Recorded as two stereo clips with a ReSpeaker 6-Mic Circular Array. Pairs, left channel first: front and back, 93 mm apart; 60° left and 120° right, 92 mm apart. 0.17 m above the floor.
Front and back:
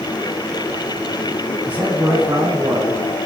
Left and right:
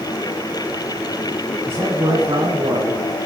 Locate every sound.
1.7 s a man speaking: 130° right, 1.2 m